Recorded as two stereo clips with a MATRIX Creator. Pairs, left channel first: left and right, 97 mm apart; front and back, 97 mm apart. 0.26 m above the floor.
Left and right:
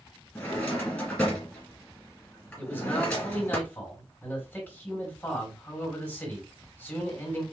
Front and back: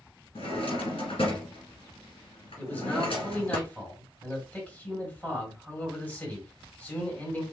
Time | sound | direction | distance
0.3 | a drawer | 10° left | 2 m
2.6 | a man speaking | 55° left | 1.6 m